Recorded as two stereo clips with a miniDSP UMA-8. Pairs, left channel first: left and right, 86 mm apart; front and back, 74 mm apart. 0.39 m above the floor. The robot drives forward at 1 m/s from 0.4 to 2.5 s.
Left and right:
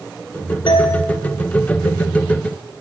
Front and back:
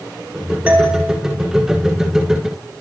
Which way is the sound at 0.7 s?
110° left.